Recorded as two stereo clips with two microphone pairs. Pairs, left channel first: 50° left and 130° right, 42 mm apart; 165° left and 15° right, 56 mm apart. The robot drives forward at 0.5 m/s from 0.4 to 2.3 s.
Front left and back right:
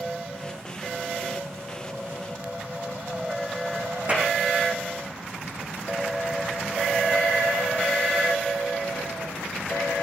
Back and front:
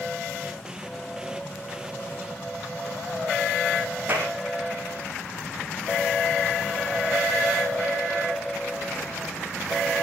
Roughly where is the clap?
Right.